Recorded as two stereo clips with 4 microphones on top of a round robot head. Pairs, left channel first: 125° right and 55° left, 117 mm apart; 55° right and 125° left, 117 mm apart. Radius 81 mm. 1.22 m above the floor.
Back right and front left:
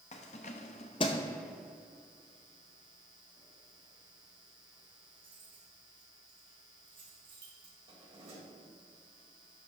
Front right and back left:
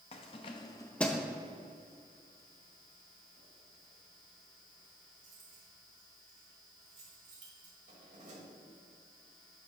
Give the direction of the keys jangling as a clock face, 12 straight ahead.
3 o'clock.